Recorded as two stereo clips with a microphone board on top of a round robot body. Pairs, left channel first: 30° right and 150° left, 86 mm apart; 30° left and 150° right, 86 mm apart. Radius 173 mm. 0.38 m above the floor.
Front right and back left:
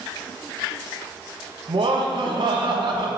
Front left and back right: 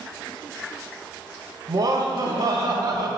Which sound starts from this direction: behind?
Laughter, at 1.7 s.